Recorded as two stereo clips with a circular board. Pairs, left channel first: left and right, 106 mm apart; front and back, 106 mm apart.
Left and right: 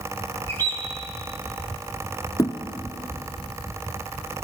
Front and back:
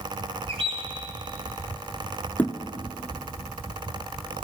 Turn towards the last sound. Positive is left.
turn(degrees=70)